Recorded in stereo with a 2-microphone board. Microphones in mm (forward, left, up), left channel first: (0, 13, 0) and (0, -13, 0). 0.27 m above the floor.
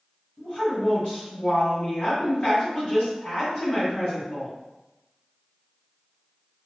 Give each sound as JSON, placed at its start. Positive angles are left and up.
{"t": 0.4, "sound": "a woman speaking", "side_deg": 40, "distance_m": 1.8}